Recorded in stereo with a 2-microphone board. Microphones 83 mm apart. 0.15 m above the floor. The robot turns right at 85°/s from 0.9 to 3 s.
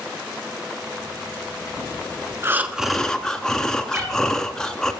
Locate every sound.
2.4 s breathing: 40° right, 0.6 m; by 4.9 s 10° left, 0.6 m
3.9 s a cat meowing: 20° right (ahead or behind), 1.8 m